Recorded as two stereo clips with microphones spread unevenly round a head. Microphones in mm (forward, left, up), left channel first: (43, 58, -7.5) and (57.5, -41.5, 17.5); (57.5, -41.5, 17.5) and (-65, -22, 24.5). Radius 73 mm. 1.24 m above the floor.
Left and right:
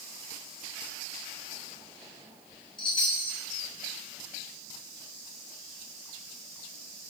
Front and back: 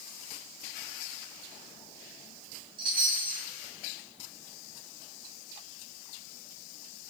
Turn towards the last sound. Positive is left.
turn(degrees=145)